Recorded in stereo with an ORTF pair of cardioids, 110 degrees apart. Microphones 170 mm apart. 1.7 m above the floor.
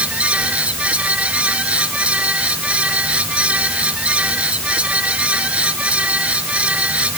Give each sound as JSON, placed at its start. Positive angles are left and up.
{"t": 0.0, "sound": "a fan", "azimuth_deg": -10}